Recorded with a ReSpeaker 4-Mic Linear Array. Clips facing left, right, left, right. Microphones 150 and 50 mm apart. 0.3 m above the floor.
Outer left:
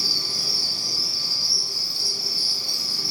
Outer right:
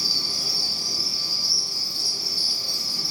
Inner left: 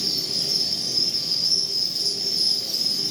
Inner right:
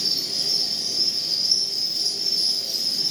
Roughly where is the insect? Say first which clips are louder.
Outer left 1 dB, even; centre.